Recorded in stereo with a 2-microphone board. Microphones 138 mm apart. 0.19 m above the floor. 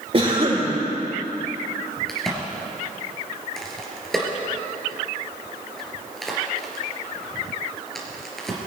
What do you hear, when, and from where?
0.1 s a cough: 40° right (ahead or behind), 7 m
2.1 s a crack: centre (ahead or behind), 3 m